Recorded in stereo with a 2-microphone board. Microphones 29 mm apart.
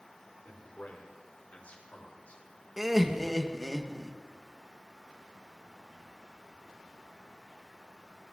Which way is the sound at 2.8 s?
5° right (ahead or behind).